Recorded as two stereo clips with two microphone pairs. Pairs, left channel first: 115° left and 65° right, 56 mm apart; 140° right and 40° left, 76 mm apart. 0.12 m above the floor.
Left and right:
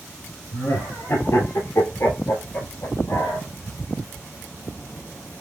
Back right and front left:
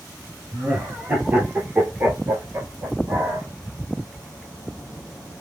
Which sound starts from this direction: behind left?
Laughter, at 0.5 s.